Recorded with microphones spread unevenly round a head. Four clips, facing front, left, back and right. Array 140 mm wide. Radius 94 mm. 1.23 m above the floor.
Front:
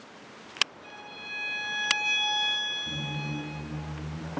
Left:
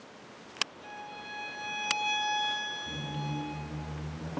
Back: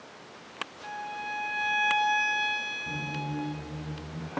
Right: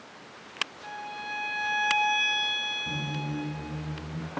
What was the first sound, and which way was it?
A violin, 155° right.